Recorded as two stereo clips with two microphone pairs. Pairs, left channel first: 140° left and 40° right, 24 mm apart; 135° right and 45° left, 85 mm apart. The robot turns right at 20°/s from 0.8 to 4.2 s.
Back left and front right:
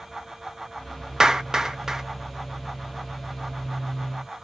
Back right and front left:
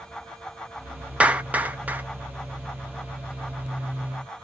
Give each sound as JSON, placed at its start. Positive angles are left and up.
{"t": 1.2, "sound": "a clap", "azimuth_deg": -5, "distance_m": 0.5}